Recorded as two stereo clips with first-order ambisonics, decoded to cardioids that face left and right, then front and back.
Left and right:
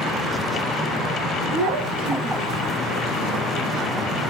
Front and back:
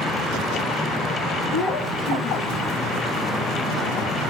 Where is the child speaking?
85° right, 4.5 m; by 2.7 s 65° right, 4 m.